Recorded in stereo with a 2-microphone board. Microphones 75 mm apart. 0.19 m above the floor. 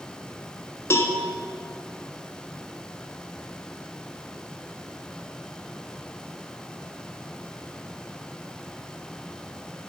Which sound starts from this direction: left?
A cowbell, at 0.9 s.